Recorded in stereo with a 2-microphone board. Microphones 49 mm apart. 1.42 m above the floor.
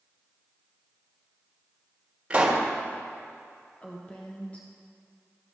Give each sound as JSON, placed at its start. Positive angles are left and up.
{"t": 2.3, "sound": "a pop", "side_deg": -25, "distance_m": 1.6}
{"t": 3.8, "sound": "a woman speaking", "side_deg": 25, "distance_m": 0.9}